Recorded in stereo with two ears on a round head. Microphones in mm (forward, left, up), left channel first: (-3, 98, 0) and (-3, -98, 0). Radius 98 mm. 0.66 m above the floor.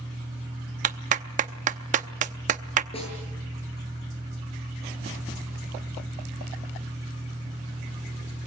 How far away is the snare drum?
About 9 m.